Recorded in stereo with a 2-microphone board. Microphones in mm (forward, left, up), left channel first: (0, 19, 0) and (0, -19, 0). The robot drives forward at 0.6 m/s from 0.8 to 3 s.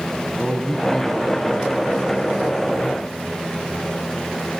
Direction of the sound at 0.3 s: 10° left (ahead or behind).